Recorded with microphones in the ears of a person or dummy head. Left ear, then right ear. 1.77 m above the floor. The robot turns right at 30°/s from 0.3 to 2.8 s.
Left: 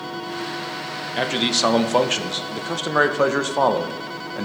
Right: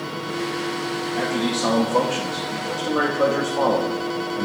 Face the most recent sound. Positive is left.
turn(degrees=100)